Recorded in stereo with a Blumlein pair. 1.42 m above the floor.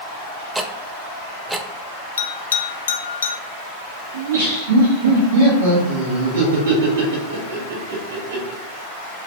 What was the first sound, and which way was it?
Ticking, 10° right.